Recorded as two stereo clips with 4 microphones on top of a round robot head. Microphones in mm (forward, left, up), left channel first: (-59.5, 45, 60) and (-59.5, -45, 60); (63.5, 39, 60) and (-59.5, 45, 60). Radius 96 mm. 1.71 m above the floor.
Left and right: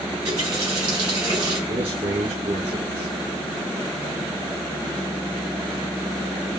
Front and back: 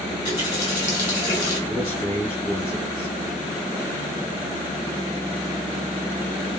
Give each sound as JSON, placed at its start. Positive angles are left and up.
{"t": 0.1, "sound": "a running tap", "azimuth_deg": -50, "distance_m": 3.5}
{"t": 1.7, "sound": "a man speaking", "azimuth_deg": -70, "distance_m": 3.0}